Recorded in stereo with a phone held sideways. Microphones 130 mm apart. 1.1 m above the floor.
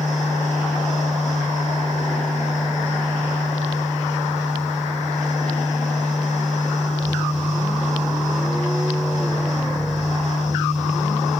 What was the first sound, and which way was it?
A fan, 75° left (ahead or behind).